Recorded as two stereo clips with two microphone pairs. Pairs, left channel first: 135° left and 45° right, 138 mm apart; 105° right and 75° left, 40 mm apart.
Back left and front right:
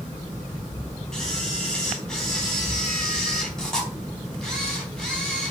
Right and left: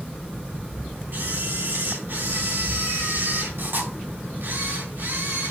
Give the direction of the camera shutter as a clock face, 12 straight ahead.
10 o'clock.